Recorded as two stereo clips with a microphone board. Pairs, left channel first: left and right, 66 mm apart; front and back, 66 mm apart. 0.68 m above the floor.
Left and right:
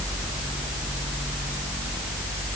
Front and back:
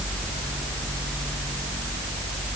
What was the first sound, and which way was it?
Only background noise.